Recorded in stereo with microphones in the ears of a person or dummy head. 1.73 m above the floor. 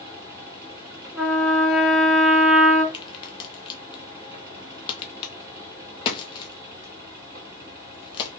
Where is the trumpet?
5° right (ahead or behind), 2.5 m.